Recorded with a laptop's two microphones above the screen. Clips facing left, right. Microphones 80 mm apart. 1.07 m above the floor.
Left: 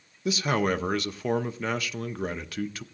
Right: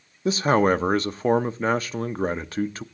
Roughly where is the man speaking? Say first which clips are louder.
Right 6 dB; right.